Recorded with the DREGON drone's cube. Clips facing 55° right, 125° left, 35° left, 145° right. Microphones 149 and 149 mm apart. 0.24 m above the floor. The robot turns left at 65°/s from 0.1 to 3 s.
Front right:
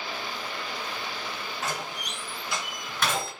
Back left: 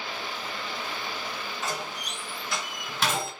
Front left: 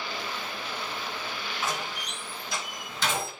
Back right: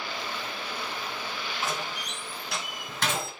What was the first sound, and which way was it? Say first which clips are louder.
A door slam: even, front left 1 dB; 85° right.